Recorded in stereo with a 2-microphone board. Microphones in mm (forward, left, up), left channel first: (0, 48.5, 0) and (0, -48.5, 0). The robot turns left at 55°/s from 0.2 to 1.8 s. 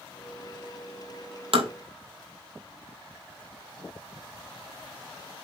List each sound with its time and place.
1.5 s tapping: 70° right (ahead or behind), 2 m; by 1.7 s 60° right (ahead or behind), 2 m